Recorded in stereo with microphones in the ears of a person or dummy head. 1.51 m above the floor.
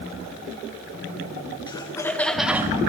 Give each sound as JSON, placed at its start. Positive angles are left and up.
{"t": 1.7, "sound": "laughter", "side_deg": 25, "distance_m": 1.5}